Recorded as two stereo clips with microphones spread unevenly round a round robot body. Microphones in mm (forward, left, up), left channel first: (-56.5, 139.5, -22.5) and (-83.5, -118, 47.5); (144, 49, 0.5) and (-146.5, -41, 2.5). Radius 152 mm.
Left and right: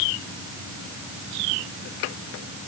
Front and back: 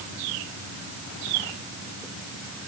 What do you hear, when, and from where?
Only background noise.